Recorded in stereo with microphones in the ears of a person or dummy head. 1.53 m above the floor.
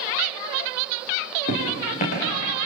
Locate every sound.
1.5 s footsteps: 45° left (ahead or behind), 7 m